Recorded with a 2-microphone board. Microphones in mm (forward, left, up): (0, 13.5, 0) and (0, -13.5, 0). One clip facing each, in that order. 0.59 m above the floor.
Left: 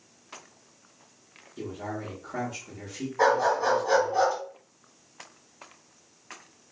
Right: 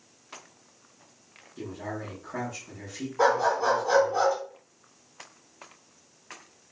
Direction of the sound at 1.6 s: 10° left (ahead or behind).